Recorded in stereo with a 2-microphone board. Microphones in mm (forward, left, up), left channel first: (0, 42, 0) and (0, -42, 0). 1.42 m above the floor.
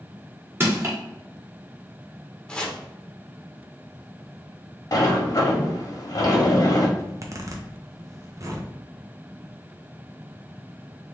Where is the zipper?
40° right (ahead or behind), 0.7 m.